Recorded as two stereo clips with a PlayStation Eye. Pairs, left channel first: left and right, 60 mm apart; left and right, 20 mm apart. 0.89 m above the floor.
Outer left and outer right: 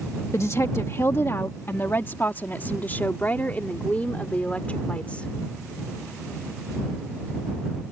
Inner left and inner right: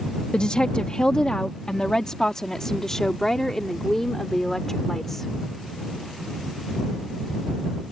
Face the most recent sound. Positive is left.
turn(degrees=20)  # may be behind; listen again after turning